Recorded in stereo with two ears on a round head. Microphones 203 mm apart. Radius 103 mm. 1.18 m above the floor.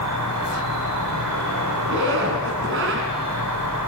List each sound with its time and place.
0.0 s an insect: 80° right, 4.5 m
1.9 s a zipper: 55° right (ahead or behind), 3 m